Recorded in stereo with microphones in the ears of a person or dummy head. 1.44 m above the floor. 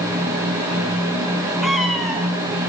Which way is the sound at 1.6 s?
Centre (ahead or behind).